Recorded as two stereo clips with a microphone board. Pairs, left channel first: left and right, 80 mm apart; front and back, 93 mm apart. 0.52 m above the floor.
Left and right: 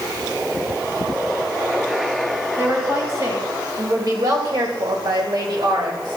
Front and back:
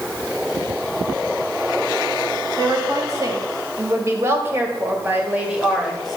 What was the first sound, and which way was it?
A woman speaking, 140° right.